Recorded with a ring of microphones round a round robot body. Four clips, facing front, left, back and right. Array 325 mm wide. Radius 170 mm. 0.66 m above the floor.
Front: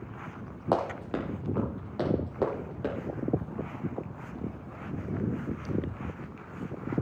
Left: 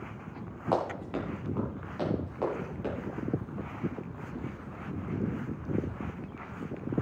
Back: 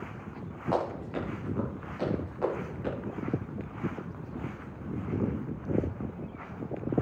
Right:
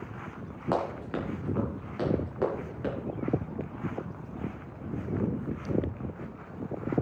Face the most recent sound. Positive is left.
turn(degrees=-20)